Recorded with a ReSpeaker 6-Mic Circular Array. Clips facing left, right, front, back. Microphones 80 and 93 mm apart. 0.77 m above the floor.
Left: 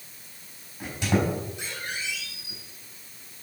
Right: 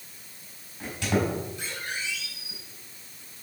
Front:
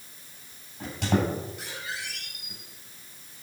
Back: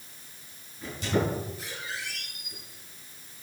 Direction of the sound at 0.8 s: 15° left.